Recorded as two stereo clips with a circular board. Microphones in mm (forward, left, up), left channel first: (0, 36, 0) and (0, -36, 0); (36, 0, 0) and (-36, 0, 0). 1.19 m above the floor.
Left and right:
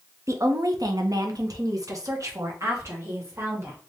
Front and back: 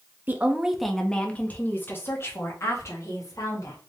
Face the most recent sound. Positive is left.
turn(degrees=-40)